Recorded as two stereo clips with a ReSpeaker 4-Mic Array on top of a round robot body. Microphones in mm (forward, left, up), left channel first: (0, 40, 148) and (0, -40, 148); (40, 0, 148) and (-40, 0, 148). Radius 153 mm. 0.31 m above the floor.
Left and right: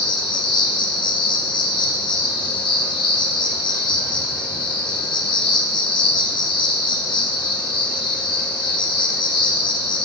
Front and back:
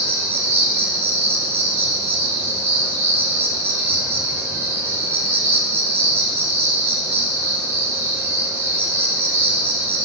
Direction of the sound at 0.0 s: 115° left.